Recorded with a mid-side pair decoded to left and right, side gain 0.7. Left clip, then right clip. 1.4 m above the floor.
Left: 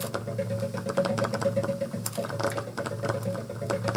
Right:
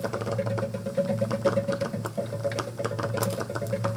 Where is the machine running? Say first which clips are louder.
Right 3 dB; 10° right, 1.4 m.